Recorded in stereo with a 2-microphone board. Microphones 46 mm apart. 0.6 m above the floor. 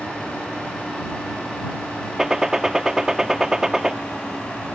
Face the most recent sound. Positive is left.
turn(degrees=-10)  # may be behind; listen again after turning